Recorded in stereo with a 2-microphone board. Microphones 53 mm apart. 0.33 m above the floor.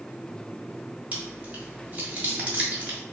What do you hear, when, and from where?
1.1 s chewing: 25° right (ahead or behind), 1.4 m